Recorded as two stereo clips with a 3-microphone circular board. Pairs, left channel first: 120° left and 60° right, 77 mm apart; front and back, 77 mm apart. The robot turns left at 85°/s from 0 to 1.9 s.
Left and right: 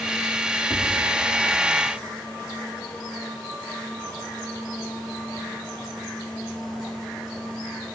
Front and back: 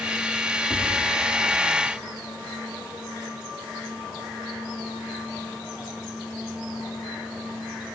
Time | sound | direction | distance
0.7 | tapping | 170° left | 7.5 m